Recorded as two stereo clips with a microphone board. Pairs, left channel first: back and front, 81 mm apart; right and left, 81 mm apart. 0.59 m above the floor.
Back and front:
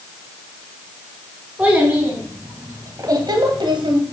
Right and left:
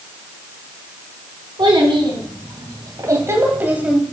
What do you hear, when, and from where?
1.6 s a child speaking: 75° left, 3 m; by 4.0 s 10° left, 2.0 m